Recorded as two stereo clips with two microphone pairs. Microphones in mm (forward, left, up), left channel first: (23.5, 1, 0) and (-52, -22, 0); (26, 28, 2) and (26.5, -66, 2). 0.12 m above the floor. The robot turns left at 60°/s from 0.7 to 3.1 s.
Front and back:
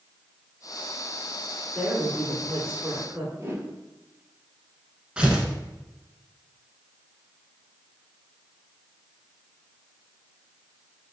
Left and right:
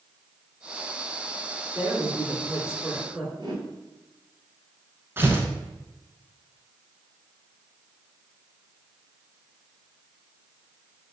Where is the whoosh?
110° right, 1.1 m.